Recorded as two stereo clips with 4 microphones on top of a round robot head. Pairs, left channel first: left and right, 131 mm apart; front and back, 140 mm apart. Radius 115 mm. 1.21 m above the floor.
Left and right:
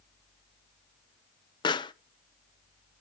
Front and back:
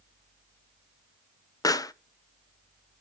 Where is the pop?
55° left, 0.6 m.